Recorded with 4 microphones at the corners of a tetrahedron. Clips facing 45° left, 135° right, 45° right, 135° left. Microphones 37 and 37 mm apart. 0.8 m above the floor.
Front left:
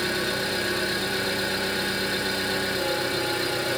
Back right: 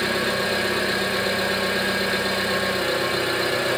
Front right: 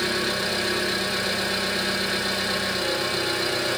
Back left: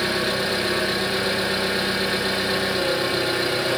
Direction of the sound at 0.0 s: 155° right.